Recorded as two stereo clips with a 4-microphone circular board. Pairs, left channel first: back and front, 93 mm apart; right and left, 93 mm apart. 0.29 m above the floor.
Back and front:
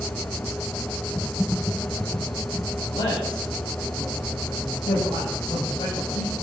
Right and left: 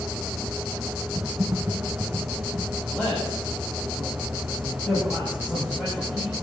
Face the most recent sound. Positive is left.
turn(degrees=-170)